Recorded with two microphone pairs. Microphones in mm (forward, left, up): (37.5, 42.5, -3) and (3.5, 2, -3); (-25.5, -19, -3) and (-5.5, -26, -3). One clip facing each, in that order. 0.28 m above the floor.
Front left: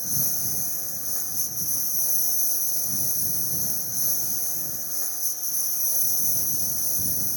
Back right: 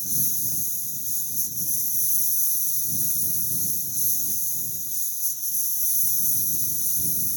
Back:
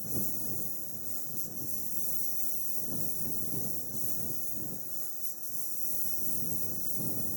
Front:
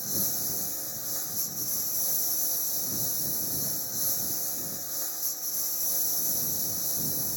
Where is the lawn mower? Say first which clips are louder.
Front left 2 dB, front 7 dB; 10° left.